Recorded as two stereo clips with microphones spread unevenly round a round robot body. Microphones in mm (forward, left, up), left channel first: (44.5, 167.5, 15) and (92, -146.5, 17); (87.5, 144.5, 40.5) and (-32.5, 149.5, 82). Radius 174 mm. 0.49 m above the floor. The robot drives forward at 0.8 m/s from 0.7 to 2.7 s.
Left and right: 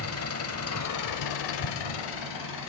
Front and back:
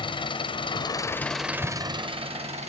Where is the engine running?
50° left, 0.9 m; by 2.7 s 145° left, 1.2 m.